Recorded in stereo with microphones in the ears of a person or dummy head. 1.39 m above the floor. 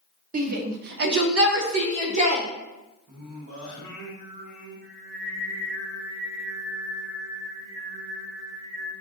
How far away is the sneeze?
No sneeze in this recording.